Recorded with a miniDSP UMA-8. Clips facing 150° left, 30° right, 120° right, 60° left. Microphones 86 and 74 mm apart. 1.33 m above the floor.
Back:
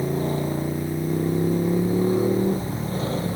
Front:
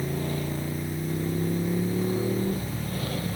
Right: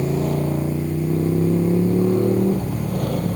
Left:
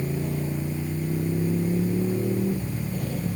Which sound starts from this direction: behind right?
A motorcycle, at 0.0 s.